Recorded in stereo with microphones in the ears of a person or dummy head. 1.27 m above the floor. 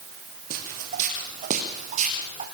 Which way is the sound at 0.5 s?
50° right (ahead or behind).